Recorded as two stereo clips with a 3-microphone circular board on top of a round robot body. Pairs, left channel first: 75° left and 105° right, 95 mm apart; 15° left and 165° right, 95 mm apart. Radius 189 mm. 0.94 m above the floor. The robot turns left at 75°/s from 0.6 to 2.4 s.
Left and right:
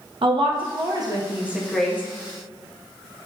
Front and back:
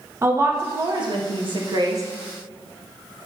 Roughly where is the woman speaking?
Right.